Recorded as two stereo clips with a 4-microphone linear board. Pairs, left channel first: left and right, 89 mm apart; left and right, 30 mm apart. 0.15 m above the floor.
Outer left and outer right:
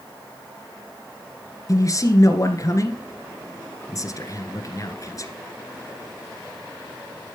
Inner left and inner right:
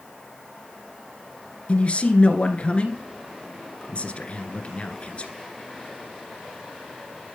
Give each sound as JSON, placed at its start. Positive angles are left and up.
{"t": 1.7, "sound": "a man speaking", "side_deg": 40, "distance_m": 1.8}